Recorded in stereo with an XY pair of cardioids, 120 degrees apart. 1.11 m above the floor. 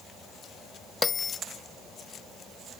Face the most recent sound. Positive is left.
turn(degrees=25)